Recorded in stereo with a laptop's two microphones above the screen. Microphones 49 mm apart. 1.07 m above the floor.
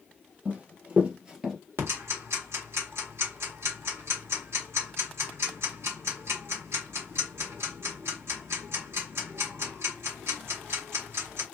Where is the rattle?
I don't hear a rattle.